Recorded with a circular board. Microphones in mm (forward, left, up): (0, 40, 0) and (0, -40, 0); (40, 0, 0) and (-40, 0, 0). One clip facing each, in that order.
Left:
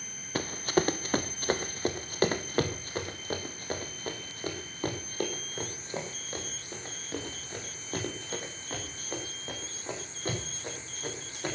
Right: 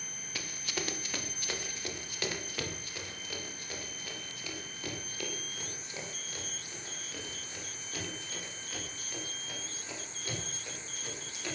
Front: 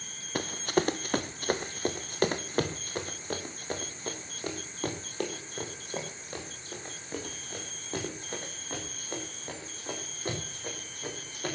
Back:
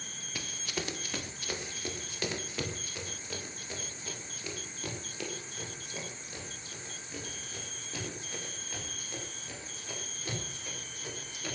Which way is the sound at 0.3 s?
45° left.